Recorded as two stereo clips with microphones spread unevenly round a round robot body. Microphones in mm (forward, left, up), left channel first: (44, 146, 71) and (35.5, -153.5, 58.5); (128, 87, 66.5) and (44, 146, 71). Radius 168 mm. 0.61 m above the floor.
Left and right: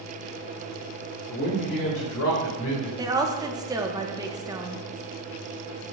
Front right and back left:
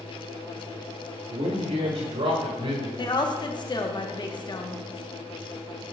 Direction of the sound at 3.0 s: 20° right.